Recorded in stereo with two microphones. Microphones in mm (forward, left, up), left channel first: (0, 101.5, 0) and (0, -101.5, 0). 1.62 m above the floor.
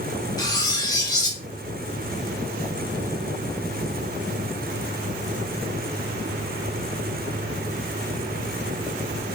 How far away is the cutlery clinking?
About 1.2 m.